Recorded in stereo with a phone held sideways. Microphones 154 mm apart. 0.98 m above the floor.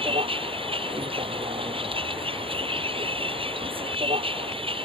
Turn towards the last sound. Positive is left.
turn(degrees=-35)  # may be behind; listen again after turning